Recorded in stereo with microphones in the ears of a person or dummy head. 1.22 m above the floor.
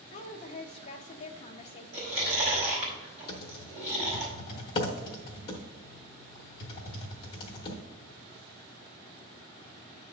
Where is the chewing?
30° right (ahead or behind), 4 m.